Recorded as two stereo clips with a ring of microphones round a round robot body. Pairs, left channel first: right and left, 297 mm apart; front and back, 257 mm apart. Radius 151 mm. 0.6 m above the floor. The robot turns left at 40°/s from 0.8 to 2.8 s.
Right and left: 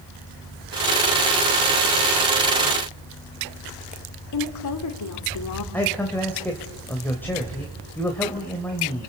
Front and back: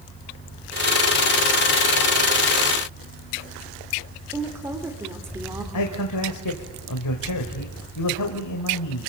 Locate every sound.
4.3 s a woman speaking: 100° right, 2.5 m
5.7 s a man speaking: 5° right, 2 m